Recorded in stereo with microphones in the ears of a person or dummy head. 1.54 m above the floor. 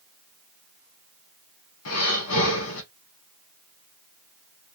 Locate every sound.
1.9 s breathing: 85° left, 1.2 m